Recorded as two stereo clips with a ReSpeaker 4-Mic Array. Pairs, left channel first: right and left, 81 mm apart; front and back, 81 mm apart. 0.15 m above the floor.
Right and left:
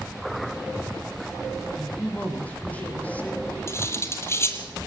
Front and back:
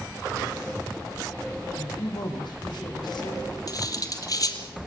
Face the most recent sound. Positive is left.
turn(degrees=-35)